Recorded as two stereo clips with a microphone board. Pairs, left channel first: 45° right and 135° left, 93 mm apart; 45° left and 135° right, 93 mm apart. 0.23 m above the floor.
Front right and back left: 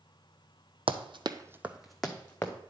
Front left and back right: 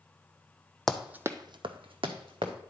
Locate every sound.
0.9 s running footsteps: 130° left, 0.6 m; by 2.5 s 120° right, 1.3 m